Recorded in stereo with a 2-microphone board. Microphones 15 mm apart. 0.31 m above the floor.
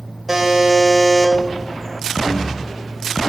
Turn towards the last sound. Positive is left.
turn(degrees=-15)  # may be behind; listen again after turning